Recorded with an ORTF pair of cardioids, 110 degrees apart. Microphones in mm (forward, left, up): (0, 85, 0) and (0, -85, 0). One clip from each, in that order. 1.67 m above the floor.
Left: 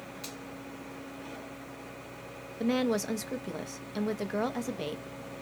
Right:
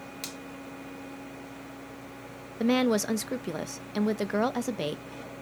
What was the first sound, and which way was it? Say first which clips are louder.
A finger snap: right 4 dB; 60° right.